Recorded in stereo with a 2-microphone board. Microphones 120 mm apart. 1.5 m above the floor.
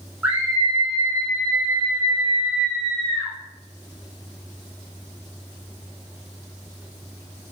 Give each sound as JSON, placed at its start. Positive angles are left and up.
{"t": 0.2, "sound": "a scream", "side_deg": -15, "distance_m": 1.9}